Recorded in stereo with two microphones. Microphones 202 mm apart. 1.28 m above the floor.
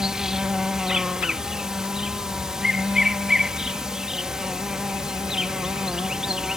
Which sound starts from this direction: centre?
An insect, at 0.0 s.